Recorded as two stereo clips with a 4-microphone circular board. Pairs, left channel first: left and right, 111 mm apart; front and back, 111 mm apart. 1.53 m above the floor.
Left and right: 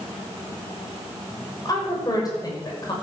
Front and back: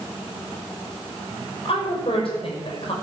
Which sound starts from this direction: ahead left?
A woman speaking, at 1.6 s.